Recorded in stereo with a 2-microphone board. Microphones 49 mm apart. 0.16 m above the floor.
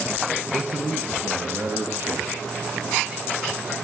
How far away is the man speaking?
About 1.8 m.